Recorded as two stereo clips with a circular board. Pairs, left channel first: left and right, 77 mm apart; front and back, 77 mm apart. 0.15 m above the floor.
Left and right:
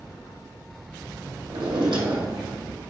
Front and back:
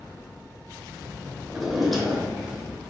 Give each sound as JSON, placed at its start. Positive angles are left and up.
{"t": 1.5, "sound": "a drawer", "azimuth_deg": -90, "distance_m": 1.7}